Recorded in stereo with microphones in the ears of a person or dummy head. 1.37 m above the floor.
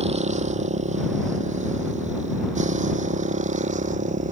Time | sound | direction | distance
0.0 | a motorcycle | 35° right (ahead or behind) | ?